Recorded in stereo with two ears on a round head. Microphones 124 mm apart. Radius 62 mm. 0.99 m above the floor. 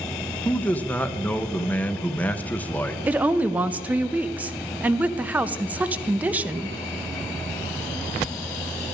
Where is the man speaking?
10° left (ahead or behind), 0.7 m.